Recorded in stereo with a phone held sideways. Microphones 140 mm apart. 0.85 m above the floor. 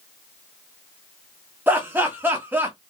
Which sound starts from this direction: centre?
Laughter, at 1.7 s.